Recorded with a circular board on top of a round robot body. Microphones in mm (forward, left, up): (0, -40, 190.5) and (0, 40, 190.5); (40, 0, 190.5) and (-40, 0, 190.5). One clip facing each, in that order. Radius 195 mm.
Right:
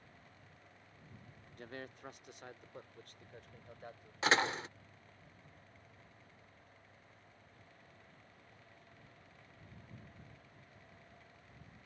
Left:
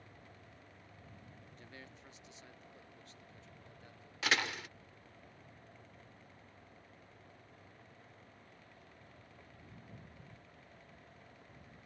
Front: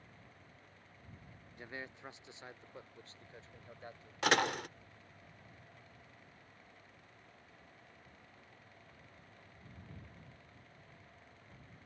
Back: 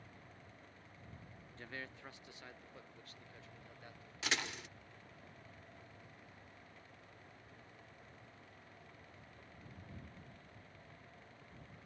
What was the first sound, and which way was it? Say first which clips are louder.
A man speaking: right 9 dB, front 2 dB; 70° right.